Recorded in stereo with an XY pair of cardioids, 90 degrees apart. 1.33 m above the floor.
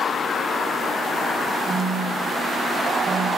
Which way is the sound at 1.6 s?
45° right.